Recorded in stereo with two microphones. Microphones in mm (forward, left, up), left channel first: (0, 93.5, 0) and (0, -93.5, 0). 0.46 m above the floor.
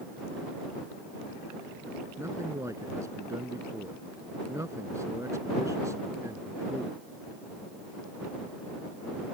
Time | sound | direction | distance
2.2 | a man speaking | 15° right (ahead or behind) | ?